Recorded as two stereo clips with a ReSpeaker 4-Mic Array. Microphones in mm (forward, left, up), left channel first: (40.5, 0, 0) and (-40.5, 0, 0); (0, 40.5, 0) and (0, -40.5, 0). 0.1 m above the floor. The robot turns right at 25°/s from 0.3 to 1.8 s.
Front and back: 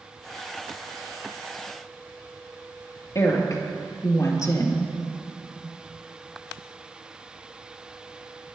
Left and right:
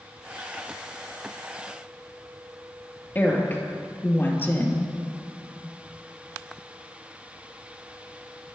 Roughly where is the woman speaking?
Ahead left.